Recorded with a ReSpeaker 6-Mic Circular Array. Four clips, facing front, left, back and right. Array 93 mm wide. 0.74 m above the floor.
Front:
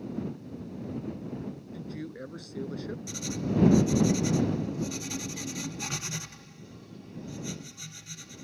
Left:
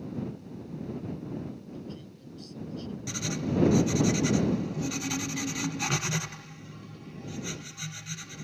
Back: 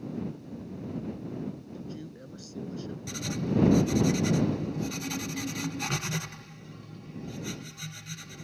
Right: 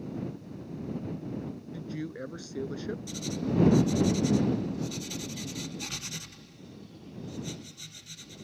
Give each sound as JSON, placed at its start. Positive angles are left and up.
{"t": 1.7, "sound": "a man speaking", "azimuth_deg": -65}
{"t": 3.1, "sound": "writing", "azimuth_deg": 110}